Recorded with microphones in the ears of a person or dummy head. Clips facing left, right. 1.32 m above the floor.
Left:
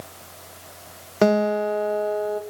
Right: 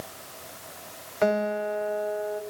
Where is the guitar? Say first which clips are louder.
Left 6 dB; 55° left (ahead or behind), 1.0 m.